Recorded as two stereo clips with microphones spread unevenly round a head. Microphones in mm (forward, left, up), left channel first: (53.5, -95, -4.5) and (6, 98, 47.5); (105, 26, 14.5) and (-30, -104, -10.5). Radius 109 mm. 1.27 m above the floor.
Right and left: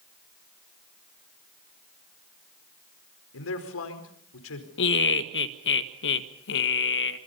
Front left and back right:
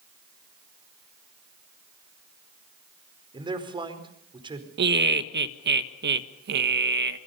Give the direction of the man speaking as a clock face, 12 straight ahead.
2 o'clock.